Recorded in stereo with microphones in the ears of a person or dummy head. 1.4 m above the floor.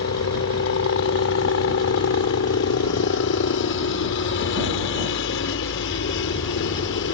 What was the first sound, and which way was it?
A helicopter, 60° left (ahead or behind).